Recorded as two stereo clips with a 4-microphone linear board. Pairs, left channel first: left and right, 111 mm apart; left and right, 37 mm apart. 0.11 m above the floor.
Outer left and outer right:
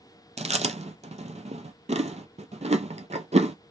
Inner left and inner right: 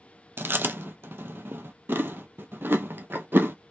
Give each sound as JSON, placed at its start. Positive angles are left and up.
{"t": 0.4, "sound": "chewing", "side_deg": -75, "distance_m": 0.5}